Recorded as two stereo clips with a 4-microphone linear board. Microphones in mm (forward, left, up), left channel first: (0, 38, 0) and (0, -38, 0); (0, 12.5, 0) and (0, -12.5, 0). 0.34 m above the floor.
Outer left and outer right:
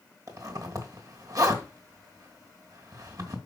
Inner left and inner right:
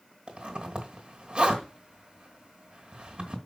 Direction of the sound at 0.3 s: 55° right (ahead or behind).